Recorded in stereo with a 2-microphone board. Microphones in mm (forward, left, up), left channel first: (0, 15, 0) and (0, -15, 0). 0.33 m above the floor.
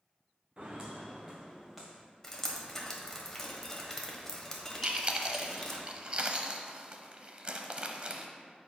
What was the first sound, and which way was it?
Footsteps, 30° right (ahead or behind).